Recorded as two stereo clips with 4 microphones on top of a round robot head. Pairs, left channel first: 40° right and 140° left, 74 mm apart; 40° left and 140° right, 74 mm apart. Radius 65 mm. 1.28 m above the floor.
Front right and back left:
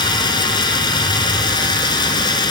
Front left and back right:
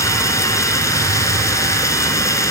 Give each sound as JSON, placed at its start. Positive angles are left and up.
{"t": 0.0, "sound": "running water", "azimuth_deg": -10}